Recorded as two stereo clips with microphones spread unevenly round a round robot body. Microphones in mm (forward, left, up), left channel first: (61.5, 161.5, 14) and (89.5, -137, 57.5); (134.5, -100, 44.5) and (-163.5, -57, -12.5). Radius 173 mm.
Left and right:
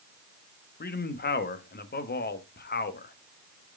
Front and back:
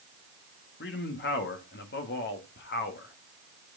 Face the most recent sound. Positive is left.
turn(degrees=55)